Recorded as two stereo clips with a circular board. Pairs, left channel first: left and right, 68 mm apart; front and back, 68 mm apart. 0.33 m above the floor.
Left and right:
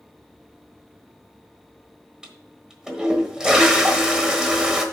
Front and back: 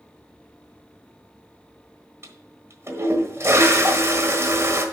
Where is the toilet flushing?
165° right, 1.2 m.